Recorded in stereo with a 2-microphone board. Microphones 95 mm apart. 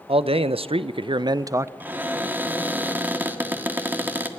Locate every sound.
0.1 s a man speaking: 75° right (ahead or behind), 0.8 m; by 1.7 s 25° right (ahead or behind), 0.6 m
1.8 s a cupboard door: 20° right (ahead or behind), 1.6 m